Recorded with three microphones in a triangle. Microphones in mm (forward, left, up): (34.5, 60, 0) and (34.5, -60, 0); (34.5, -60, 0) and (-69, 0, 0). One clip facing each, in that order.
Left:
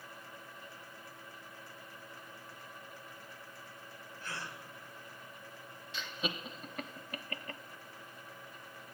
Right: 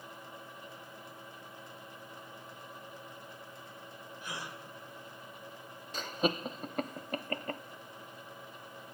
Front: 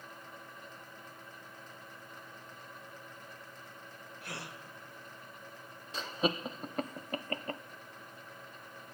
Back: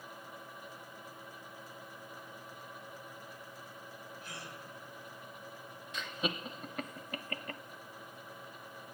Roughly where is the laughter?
Right.